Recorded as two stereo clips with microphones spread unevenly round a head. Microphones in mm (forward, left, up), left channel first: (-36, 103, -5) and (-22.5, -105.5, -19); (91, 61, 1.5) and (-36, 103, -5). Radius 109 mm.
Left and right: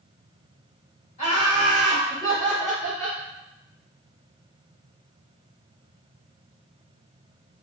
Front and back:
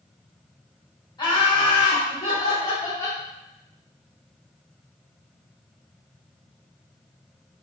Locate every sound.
1.2 s laughter: 35° left, 1.9 m; by 3.2 s 10° right, 1.3 m